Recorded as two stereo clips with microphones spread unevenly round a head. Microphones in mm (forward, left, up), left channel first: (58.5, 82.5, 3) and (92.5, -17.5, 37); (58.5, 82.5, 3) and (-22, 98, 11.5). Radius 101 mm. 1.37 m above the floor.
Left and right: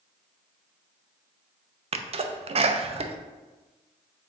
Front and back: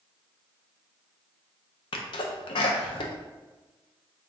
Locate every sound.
1.9 s a sneeze: 35° right, 0.6 m